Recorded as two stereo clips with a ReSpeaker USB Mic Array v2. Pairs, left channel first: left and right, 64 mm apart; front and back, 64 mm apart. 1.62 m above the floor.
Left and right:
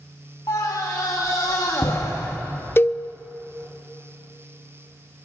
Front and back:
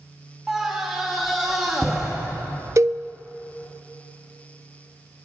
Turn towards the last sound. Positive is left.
turn(degrees=145)